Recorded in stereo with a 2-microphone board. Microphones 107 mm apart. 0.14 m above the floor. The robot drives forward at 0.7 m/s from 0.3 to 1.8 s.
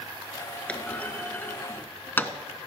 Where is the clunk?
10° left (ahead or behind), 1.4 m; by 2.3 s 20° left (ahead or behind), 0.9 m.